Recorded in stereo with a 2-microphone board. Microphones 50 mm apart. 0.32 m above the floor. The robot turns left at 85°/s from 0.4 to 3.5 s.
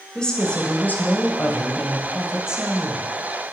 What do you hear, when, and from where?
0.1 s a woman speaking: 160° left, 1.8 m; by 3.1 s 70° right, 1.8 m